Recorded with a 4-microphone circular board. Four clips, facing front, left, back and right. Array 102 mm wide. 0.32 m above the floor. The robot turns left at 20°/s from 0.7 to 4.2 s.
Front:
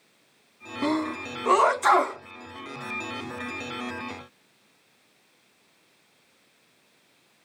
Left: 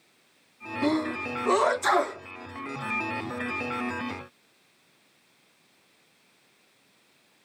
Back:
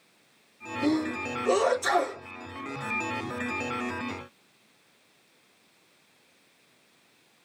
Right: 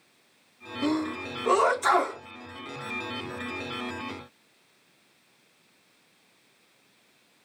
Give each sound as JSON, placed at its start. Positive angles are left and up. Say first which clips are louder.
{"t": 0.8, "sound": "a sneeze", "louder": "left 1 dB, even", "azimuth_deg": 10, "distance_m": 3.0}